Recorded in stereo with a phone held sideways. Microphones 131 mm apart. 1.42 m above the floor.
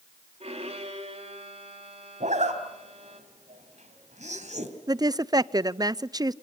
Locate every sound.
0.4 s a violin: 50° right (ahead or behind), 3.5 m
2.2 s a zipper: 60° right (ahead or behind), 3 m
4.9 s a woman speaking: 25° right (ahead or behind), 0.5 m